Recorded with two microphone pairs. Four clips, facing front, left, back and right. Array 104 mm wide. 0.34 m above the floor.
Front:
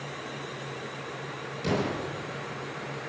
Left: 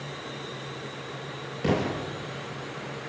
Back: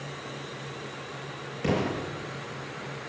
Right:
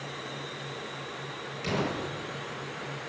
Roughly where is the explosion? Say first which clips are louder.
Left 5 dB, back 1 dB; behind left.